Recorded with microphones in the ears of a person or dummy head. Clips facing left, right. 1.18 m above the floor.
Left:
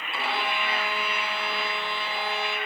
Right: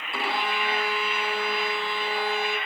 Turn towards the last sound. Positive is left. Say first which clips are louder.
# right 1 dB
turn(degrees=-45)  # may be behind; listen again after turning